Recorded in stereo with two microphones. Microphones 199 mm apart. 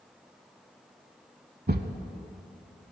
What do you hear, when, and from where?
1.7 s a thud: 50° right (ahead or behind), 0.7 m